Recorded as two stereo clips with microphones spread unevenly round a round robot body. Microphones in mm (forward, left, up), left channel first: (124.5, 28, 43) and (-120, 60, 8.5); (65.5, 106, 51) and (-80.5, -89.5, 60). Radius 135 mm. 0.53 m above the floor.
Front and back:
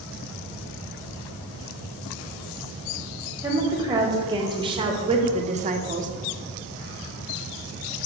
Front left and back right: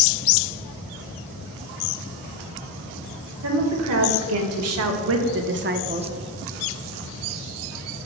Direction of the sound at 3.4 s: 110° right.